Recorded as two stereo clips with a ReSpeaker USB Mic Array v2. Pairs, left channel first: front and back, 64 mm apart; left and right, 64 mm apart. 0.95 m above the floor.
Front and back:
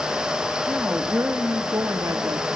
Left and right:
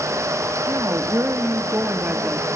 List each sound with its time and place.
0.7 s a woman speaking: 115° right, 1.8 m; by 2.5 s 160° right, 1.9 m